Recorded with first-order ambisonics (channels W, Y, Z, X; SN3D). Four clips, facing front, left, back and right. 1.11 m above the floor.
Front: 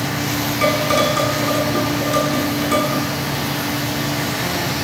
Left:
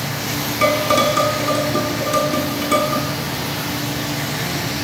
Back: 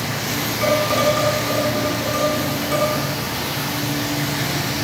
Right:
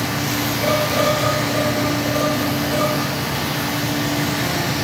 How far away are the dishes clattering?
About 7.5 m.